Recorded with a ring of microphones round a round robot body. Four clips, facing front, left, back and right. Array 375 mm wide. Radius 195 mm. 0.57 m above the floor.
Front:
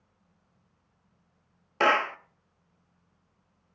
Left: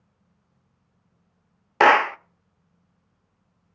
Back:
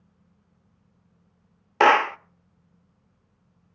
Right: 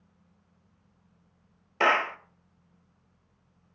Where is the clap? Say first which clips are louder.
Left 9 dB, back 7 dB; 125° left, 0.5 m.